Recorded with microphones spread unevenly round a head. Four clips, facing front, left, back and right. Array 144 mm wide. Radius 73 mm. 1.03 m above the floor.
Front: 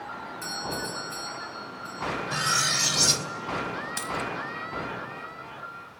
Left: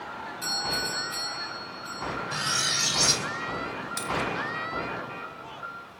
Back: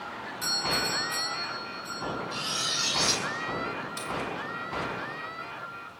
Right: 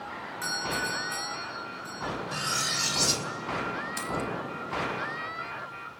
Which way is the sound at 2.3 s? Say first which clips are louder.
Left 1 dB, front 6 dB; 5° right.